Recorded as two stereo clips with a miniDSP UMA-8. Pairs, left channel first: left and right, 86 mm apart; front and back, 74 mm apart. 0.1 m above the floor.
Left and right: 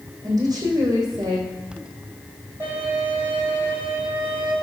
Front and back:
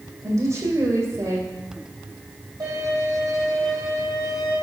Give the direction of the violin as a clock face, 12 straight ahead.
5 o'clock.